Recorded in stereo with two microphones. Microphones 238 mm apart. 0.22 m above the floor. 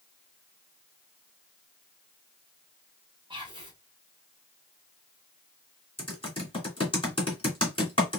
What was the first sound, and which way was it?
Whispering, 20° right (ahead or behind).